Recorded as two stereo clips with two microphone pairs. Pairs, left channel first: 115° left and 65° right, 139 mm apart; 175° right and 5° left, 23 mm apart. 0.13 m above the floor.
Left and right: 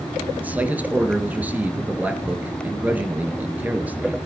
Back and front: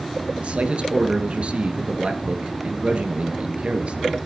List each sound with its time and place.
0.4 s a man speaking: 10° left, 1.9 m